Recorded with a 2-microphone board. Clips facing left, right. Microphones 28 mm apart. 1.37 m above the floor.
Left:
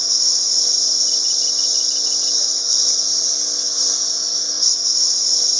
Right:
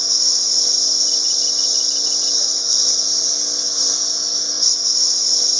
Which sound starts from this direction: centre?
A lawn mower, at 0.0 s.